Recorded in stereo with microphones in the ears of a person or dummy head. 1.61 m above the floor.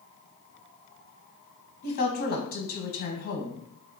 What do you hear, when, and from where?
1.8 s a woman speaking: 40° left (ahead or behind), 1.1 m